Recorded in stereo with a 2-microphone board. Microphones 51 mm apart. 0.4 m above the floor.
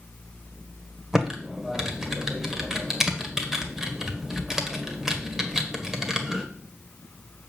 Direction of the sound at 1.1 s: 10° right (ahead or behind).